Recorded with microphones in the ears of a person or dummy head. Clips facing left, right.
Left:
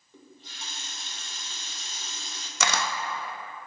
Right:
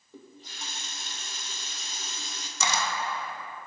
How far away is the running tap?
About 1.5 m.